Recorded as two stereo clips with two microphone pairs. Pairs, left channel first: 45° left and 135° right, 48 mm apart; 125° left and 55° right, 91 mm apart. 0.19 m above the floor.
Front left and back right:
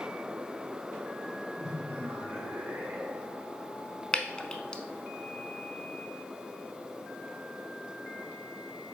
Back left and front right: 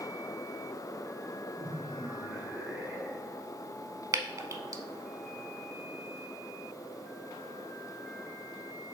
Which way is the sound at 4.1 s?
25° right.